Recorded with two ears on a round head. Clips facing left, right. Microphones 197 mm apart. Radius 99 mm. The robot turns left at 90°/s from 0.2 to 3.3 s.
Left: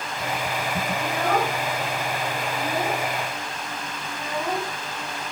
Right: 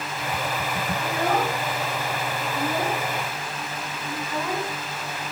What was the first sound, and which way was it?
A child speaking, 75° left (ahead or behind).